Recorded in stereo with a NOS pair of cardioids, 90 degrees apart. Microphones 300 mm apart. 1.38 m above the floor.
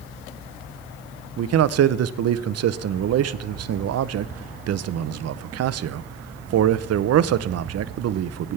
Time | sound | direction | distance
1.4 | a man speaking | 60° right | 0.7 m